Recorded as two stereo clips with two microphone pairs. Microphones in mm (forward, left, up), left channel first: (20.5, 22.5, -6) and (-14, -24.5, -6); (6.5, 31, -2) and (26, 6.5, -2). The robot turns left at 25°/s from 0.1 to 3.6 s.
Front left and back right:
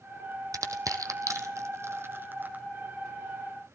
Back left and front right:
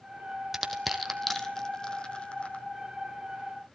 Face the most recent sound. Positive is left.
turn(degrees=150)